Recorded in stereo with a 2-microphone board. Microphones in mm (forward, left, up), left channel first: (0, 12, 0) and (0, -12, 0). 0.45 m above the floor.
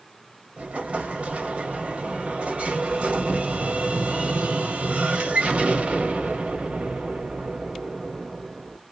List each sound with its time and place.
0.6 s an explosion: 55° right (ahead or behind), 1.1 m